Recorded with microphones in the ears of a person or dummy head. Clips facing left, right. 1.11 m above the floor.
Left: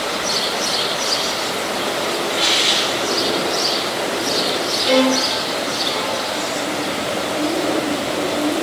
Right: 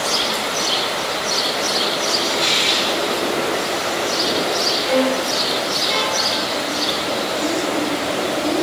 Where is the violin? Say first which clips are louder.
Left 3 dB; 60° left (ahead or behind), 4 m.